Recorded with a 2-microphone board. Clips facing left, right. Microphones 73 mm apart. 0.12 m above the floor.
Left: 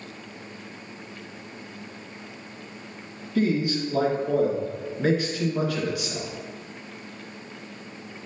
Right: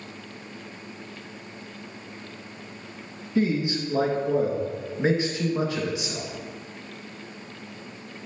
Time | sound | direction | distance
3.4 | a man speaking | 25° right (ahead or behind) | 2 m